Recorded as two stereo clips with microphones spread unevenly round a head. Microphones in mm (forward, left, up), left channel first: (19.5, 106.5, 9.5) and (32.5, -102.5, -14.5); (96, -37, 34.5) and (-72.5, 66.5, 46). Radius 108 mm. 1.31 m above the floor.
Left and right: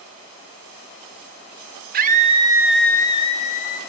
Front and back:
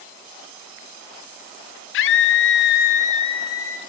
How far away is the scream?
About 0.6 m.